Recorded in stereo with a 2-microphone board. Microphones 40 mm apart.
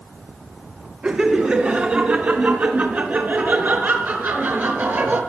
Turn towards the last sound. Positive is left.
turn(degrees=-60)  # may be behind; listen again after turning